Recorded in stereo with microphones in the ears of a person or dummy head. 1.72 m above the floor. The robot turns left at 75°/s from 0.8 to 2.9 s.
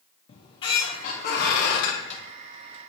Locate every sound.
0.3 s a squeak: 145° left, 1.2 m; by 2.2 s 40° left, 1.2 m